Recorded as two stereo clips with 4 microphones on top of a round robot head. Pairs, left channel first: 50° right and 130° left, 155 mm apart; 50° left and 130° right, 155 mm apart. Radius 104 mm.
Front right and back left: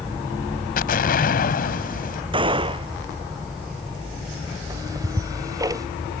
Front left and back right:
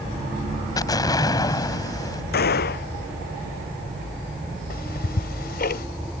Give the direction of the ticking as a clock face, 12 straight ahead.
10 o'clock.